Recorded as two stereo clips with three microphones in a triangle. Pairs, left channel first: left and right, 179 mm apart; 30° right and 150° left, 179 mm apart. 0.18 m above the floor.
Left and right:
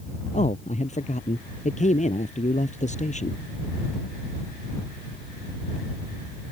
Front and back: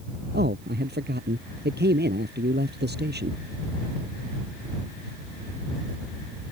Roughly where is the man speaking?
Behind left.